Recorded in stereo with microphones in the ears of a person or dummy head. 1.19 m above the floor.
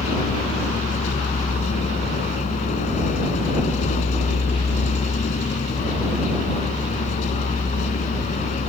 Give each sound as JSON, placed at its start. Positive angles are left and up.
{"t": 0.0, "sound": "a vehicle", "side_deg": 35}